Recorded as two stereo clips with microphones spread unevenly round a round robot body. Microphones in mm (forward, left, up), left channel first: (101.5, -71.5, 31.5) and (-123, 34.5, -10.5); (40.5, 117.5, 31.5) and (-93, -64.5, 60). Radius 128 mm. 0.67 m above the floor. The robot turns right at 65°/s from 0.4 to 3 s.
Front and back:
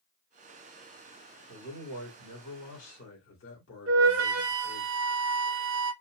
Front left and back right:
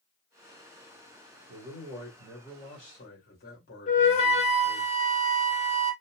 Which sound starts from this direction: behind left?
A flute, at 3.9 s.